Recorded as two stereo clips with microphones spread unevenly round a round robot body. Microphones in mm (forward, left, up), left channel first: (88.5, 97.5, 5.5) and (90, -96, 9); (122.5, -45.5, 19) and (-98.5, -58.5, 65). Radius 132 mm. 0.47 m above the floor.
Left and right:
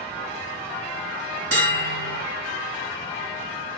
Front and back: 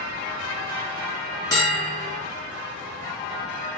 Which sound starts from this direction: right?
A bell, at 1.5 s.